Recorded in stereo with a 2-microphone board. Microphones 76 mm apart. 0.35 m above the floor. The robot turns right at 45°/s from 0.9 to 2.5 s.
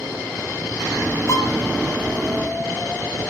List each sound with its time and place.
1.3 s a violin: 45° left (ahead or behind), 3 m; by 1.6 s 55° left (ahead or behind), 3 m